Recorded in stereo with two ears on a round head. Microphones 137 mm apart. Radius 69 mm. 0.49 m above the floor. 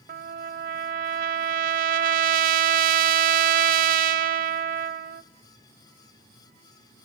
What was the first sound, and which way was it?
A trumpet, 60° right (ahead or behind).